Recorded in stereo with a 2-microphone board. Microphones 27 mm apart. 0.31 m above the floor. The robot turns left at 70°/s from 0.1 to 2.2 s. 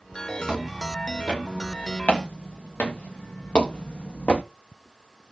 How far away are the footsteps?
About 5 m.